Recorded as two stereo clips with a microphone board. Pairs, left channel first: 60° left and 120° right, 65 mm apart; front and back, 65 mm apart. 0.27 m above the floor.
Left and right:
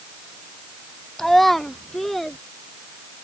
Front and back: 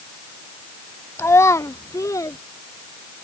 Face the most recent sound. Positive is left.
turn(degrees=-30)